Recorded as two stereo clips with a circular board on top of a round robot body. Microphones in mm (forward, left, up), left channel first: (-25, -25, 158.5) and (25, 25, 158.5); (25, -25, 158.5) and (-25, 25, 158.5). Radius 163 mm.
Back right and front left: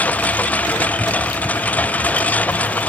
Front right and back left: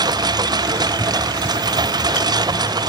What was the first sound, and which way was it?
A lawn mower, 155° left.